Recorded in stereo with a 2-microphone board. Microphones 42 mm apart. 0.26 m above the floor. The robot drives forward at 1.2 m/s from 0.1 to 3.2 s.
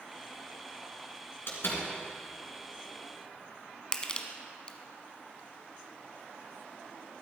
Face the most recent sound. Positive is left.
turn(degrees=20)  # may be behind; listen again after turning